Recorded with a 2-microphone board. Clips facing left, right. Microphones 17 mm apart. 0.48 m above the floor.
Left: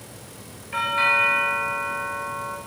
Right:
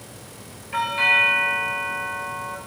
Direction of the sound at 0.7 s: Centre (ahead or behind).